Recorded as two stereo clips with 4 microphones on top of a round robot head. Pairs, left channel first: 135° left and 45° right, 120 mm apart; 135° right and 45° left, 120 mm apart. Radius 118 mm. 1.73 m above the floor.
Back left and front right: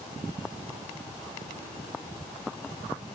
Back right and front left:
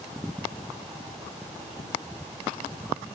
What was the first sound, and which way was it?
Only background noise.